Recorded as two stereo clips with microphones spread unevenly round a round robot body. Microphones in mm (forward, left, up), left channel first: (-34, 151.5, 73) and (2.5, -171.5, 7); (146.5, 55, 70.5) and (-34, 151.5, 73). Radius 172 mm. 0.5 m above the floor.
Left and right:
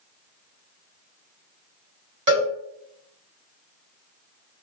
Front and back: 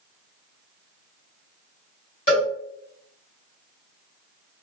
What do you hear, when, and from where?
2.3 s a cowbell: 50° right, 1.5 m